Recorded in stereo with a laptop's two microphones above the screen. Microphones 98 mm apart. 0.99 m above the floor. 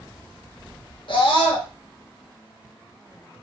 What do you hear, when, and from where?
1.1 s a scream: 65° left (ahead or behind), 1.1 m